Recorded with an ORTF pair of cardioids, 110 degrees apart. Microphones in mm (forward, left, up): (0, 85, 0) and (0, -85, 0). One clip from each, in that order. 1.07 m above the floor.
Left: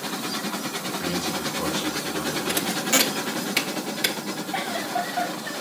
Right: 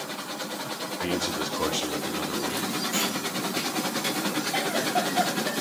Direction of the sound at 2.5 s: 65° left.